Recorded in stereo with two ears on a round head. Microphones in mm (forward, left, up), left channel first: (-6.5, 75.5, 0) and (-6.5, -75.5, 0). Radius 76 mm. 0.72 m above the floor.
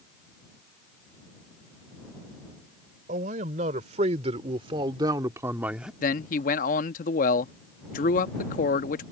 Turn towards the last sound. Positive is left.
turn(degrees=50)  # may be behind; listen again after turning